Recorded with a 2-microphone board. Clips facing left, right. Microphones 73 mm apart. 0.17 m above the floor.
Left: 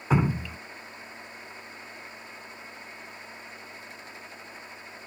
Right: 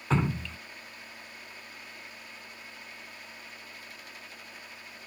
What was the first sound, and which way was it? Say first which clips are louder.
Dripping: left 3 dB; 10° left (ahead or behind).